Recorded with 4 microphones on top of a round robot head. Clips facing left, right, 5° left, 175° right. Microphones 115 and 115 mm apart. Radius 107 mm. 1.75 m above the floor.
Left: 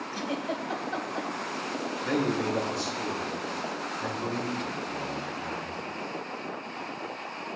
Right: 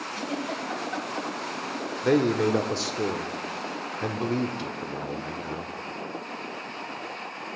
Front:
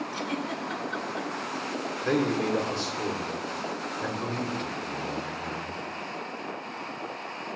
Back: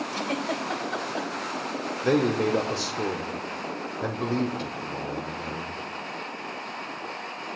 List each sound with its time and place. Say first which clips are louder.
0.1 s a giggle: even, back 3 dB; 155° left, 2 m
2.0 s a man speaking: right 6 dB, back 3 dB; 110° right, 1.2 m